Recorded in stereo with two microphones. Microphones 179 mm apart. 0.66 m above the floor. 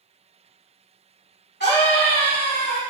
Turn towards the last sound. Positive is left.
turn(degrees=65)  # may be behind; listen again after turning